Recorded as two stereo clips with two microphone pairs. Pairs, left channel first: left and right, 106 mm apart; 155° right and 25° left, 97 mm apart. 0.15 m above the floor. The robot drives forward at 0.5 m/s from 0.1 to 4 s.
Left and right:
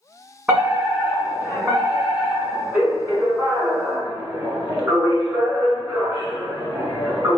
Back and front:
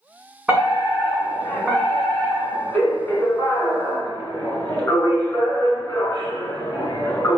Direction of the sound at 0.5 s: 40° right.